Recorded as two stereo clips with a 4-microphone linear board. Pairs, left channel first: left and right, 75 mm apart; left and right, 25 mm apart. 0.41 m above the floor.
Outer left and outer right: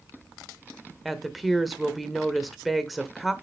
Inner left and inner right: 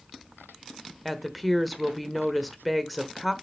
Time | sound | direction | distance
1.1 | a woman speaking | centre (ahead or behind) | 1.0 m